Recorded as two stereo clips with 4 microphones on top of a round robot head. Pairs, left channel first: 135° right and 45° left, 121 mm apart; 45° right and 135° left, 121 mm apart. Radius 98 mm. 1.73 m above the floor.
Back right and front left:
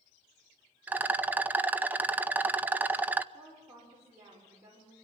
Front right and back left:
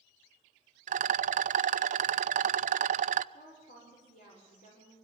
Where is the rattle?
120° left, 0.7 m.